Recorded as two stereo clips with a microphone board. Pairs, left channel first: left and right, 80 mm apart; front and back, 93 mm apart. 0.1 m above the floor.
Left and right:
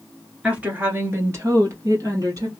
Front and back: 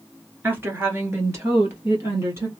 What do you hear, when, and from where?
0.4 s a woman speaking: 145° right, 1.2 m; by 2.5 s 125° right, 2.5 m